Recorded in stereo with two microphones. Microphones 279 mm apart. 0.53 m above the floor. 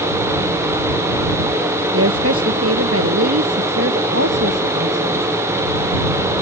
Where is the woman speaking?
55° right (ahead or behind); by 5.3 s 60° right (ahead or behind).